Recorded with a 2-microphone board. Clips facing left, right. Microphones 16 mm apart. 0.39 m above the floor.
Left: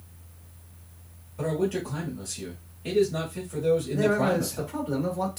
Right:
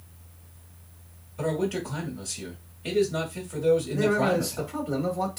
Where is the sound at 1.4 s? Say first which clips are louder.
Even; 25° right (ahead or behind), 1.2 m.